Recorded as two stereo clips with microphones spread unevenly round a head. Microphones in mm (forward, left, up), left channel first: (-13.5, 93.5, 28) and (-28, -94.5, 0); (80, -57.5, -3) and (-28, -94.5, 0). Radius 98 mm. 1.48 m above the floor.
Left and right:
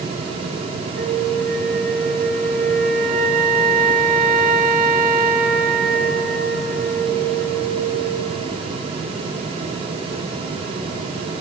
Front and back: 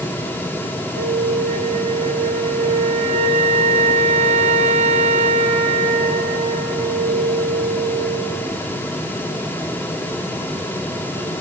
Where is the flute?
145° right, 3 m.